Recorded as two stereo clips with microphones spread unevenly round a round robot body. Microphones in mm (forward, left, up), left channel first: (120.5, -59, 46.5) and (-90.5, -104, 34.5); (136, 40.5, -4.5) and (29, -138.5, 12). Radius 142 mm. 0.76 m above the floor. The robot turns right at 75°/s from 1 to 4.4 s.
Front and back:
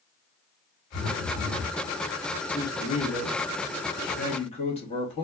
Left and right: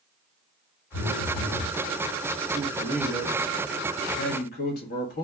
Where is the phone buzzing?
80° left, 1.7 m; by 1.7 s 135° left, 1.7 m.